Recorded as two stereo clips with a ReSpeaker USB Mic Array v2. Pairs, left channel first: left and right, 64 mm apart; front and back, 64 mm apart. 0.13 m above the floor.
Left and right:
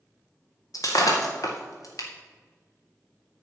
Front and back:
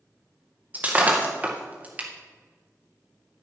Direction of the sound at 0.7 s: 115° left.